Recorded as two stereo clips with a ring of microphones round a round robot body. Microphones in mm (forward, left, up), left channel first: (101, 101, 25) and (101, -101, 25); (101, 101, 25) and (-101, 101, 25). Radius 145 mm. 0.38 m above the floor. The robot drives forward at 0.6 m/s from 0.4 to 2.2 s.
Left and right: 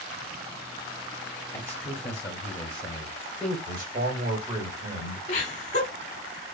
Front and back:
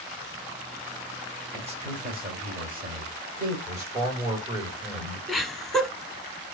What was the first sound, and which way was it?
A man speaking, 155° left.